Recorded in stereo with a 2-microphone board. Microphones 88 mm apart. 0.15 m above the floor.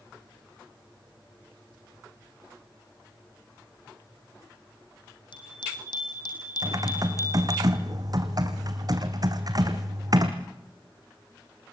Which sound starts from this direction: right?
Typing on a keyboard, at 6.6 s.